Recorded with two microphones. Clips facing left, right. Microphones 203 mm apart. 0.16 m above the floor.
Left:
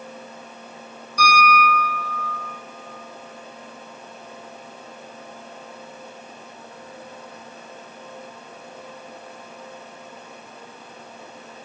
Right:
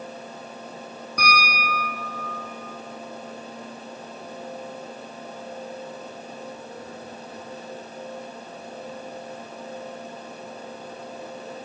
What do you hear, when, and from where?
1.2 s a piano: 55° right (ahead or behind), 4.5 m